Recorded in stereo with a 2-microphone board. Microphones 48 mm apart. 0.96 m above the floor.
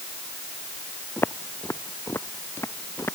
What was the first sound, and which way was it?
Footsteps, 60° left (ahead or behind).